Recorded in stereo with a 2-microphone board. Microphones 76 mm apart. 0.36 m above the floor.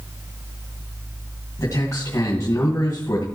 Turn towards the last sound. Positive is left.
turn(degrees=45)  # may be behind; listen again after turning